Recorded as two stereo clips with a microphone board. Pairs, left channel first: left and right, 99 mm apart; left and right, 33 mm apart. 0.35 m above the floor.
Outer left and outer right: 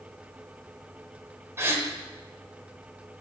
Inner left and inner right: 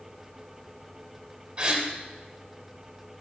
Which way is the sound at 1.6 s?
30° right (ahead or behind).